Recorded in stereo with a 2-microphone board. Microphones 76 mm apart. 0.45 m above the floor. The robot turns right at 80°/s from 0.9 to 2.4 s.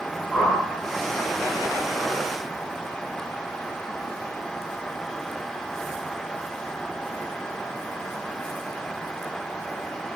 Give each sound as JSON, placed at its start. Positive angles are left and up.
{"t": 0.3, "sound": "a whoosh", "side_deg": 10, "distance_m": 1.5}